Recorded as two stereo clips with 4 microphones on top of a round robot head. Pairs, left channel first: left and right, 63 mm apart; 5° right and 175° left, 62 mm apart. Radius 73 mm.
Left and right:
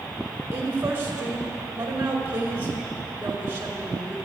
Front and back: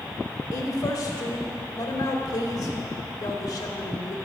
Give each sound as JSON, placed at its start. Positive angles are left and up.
{"t": 0.5, "sound": "a woman speaking", "azimuth_deg": -25, "distance_m": 1.8}